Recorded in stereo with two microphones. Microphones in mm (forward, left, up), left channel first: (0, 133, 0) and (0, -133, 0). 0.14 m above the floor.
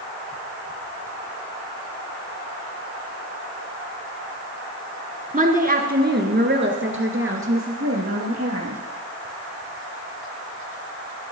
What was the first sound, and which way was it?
A woman speaking, 25° right (ahead or behind).